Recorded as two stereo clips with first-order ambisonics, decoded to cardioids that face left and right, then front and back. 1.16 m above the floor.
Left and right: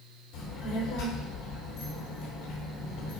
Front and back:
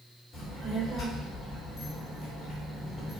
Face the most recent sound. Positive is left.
turn(degrees=90)